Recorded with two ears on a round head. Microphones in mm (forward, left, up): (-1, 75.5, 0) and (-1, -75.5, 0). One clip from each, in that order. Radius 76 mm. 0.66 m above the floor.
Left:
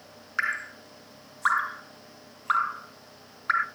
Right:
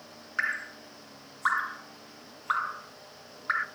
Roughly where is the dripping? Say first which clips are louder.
Left 2 dB; centre.